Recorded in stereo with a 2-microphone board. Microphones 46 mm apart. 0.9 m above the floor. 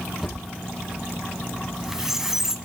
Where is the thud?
5° right (ahead or behind), 6.5 m.